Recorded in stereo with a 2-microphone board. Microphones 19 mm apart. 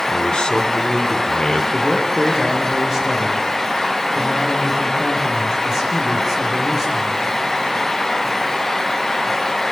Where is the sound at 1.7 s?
30° right (ahead or behind), 7.5 m.